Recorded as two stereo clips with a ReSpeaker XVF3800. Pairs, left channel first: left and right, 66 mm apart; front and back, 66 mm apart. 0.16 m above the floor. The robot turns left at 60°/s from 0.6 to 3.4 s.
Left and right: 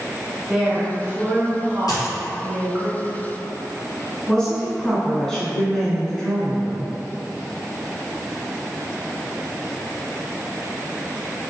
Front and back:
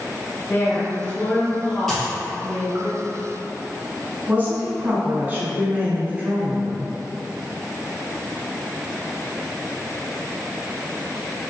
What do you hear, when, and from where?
0.5 s a woman speaking: 5° right, 1.3 m; by 2.9 s 140° right, 1.3 m
1.9 s a dropped coin: 85° left, 1.6 m; by 2.1 s 70° left, 1.6 m
4.3 s a woman speaking: 160° left, 1.2 m